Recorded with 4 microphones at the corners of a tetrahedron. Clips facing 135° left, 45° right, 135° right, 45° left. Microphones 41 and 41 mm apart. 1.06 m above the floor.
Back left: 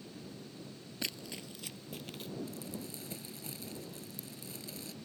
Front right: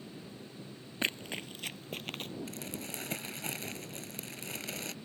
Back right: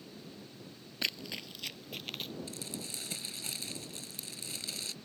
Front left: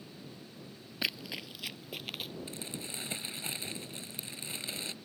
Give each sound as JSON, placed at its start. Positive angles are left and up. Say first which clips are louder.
{"t": 1.0, "sound": "running footsteps", "louder": "front right 7 dB, front left 1 dB", "azimuth_deg": -35}
{"t": 2.5, "sound": "crumpling", "louder": "front right 2 dB, front left 1 dB", "azimuth_deg": -20}